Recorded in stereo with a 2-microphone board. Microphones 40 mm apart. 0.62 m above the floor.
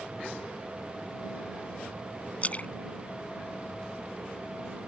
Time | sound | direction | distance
2.4 | a splash | 30° left (ahead or behind) | ?